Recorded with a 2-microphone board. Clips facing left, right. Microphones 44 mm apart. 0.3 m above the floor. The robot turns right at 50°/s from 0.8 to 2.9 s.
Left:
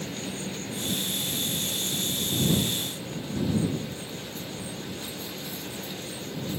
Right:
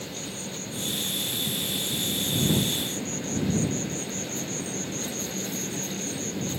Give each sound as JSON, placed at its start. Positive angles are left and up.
{"t": 0.0, "sound": "an insect", "azimuth_deg": 155}